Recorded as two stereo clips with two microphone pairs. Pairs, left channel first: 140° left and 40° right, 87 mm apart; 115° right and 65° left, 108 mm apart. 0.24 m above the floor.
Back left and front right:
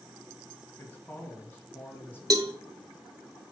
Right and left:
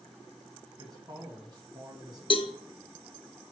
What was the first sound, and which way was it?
A man speaking, 90° left.